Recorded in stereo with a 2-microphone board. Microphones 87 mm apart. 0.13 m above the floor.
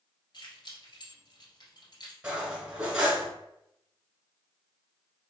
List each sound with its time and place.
0.3 s keys jangling: 55° left (ahead or behind), 1.8 m
2.2 s cutlery clinking: 10° right (ahead or behind), 0.8 m